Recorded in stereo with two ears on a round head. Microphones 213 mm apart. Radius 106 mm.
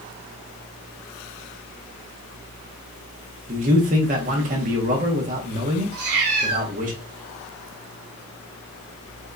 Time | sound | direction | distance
3.5 | a man speaking | 35° right (ahead or behind) | 0.8 m
5.9 | a cat meowing | 70° right (ahead or behind) | 1.2 m